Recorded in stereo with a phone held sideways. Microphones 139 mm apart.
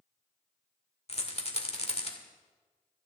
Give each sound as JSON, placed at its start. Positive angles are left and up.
{"t": 1.1, "sound": "a rattle", "side_deg": 50, "distance_m": 1.6}